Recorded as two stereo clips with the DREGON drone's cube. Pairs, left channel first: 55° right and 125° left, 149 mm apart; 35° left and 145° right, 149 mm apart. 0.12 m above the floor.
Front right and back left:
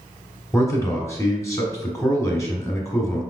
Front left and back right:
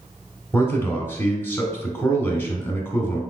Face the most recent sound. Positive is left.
turn(degrees=-20)